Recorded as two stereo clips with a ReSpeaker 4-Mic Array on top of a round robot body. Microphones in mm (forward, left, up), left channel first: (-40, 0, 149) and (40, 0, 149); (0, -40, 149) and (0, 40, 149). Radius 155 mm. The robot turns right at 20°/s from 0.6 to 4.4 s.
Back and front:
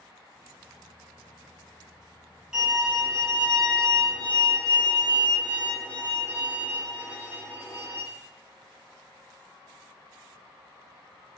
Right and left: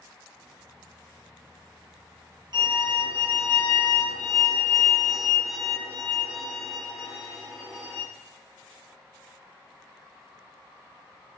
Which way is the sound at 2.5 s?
80° left.